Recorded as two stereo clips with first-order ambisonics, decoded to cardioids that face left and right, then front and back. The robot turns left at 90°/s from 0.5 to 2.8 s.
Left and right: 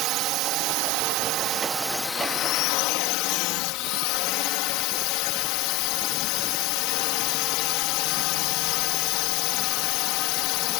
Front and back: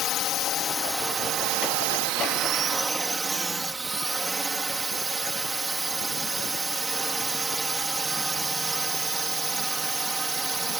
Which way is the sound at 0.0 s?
50° right.